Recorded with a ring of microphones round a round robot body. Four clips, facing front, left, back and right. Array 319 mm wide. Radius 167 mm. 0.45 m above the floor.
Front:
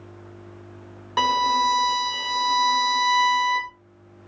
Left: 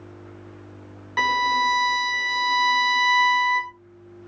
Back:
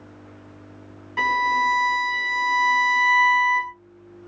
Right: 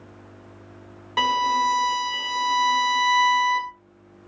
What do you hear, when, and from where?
1.2 s a violin: 25° right, 0.7 m